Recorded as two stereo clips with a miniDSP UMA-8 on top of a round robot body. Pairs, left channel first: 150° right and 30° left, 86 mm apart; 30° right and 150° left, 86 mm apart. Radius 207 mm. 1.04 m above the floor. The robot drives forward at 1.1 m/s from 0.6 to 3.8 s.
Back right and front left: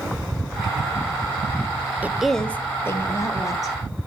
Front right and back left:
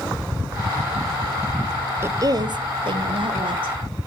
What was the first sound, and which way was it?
A woman speaking, 95° left.